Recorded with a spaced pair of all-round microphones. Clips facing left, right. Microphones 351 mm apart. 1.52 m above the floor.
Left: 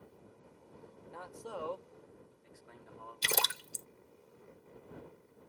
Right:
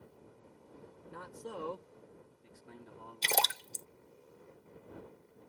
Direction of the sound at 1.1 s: 20° right (ahead or behind).